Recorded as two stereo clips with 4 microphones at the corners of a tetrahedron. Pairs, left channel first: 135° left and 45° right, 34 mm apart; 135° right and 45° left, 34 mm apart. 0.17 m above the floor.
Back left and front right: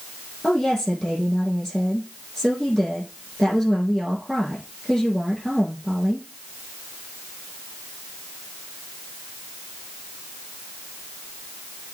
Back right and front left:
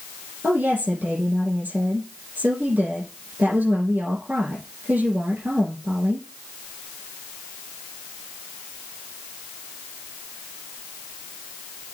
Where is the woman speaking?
55° left, 5.5 m.